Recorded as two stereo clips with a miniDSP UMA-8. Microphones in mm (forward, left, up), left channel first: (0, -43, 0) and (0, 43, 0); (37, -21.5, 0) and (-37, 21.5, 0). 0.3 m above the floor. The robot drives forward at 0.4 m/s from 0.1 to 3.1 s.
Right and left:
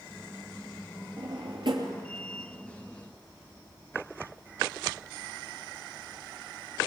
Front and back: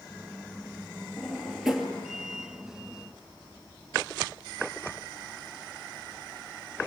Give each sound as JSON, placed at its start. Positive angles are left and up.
{"t": 1.2, "sound": "a drawer", "azimuth_deg": 60, "distance_m": 3.0}